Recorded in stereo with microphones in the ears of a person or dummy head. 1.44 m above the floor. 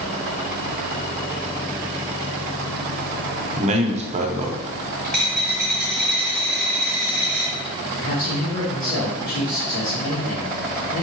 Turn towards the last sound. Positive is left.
turn(degrees=80)